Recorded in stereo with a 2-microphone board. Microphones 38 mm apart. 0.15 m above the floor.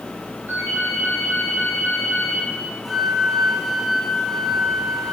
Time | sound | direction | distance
0.5 | a ringtone | 75° right (ahead or behind) | 5 m
2.9 | a flute | centre (ahead or behind) | 3.5 m